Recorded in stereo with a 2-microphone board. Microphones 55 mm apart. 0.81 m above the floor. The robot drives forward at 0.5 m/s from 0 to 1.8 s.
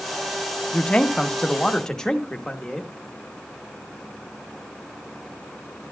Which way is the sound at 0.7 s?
20° left (ahead or behind).